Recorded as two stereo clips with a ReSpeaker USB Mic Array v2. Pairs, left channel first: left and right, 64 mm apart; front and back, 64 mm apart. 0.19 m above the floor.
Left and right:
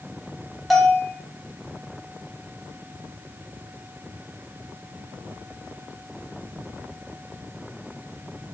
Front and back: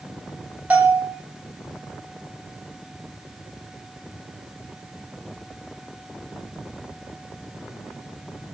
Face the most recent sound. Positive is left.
turn(degrees=-175)